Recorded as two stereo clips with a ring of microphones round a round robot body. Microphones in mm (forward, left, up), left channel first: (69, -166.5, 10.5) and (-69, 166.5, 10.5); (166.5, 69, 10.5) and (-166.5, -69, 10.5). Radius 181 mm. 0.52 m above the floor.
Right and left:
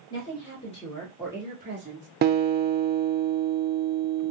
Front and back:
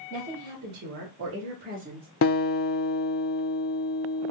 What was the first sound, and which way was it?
A woman speaking, 120° right.